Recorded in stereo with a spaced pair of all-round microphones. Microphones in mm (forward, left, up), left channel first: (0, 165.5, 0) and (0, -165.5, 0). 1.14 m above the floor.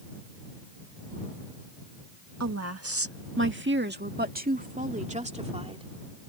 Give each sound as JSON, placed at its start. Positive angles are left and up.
{"t": 2.4, "sound": "a woman speaking", "side_deg": -50}